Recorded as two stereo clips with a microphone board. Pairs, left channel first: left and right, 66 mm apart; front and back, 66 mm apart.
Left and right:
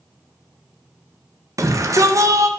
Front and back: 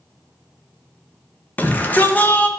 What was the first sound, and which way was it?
A shout, 60° right.